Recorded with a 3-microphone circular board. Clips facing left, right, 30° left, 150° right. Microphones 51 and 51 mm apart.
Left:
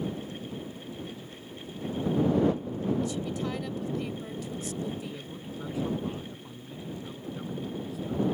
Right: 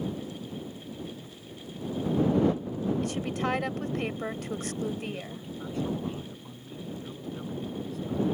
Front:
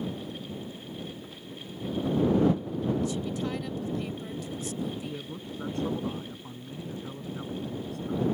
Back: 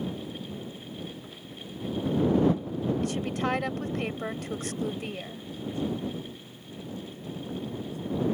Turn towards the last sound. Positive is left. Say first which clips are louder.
# right 2 dB, even
turn(degrees=5)